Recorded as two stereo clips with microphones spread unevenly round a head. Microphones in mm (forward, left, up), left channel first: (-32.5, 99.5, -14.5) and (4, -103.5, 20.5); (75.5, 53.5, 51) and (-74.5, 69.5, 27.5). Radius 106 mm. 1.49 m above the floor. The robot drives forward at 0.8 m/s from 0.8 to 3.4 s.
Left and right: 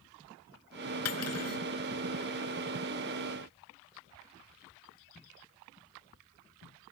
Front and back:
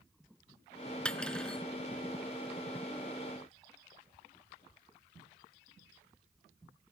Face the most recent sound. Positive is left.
turn(degrees=85)